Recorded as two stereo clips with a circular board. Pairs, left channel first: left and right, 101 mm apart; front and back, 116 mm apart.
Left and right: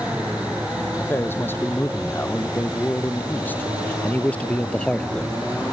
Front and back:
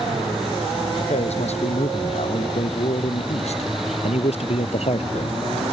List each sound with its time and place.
1.0 s a man speaking: 25° left; by 5.4 s 5° left